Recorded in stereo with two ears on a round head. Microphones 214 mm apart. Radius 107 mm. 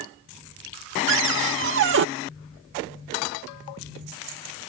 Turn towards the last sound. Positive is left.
turn(degrees=-55)  # may be behind; listen again after turning